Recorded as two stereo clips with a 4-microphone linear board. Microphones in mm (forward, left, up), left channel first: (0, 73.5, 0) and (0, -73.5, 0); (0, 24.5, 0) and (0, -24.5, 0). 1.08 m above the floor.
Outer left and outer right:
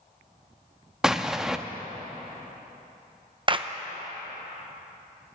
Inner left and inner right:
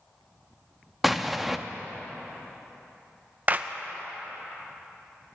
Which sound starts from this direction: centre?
An explosion, at 1.0 s.